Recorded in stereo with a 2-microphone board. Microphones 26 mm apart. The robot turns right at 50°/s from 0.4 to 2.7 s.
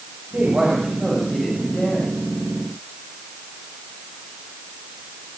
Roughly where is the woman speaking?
Ahead right.